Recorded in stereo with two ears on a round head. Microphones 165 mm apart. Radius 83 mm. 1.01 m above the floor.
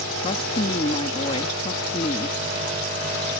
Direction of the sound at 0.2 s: 30° left (ahead or behind).